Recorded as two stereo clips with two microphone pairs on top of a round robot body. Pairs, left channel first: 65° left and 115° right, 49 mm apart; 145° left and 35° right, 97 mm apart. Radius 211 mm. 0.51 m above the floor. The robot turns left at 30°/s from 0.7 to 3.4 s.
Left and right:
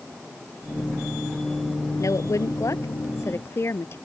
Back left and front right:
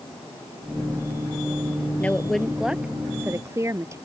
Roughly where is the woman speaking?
Left.